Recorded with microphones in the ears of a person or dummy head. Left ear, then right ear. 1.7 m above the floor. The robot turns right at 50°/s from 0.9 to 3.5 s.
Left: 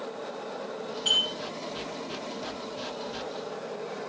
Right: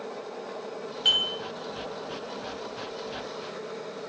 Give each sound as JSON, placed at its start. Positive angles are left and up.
{"t": 1.1, "sound": "dishes clattering", "side_deg": -45, "distance_m": 1.0}